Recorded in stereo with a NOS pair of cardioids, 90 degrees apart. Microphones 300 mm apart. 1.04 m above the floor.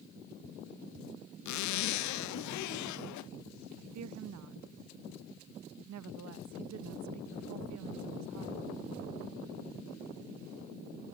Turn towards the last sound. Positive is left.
turn(degrees=-70)